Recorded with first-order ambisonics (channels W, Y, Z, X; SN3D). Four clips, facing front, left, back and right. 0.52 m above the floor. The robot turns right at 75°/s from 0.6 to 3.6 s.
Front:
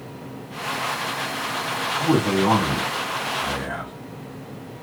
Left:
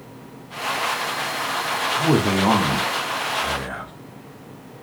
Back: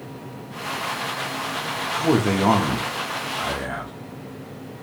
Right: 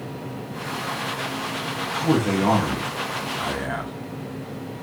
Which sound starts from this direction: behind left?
A man speaking, at 1.9 s.